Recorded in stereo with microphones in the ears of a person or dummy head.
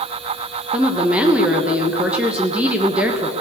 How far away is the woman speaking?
About 1.0 m.